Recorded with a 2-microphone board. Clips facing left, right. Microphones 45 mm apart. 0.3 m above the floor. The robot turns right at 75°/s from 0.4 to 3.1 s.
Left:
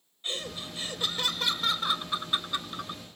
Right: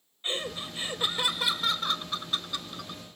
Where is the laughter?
25° right (ahead or behind); by 3.0 s 25° left (ahead or behind).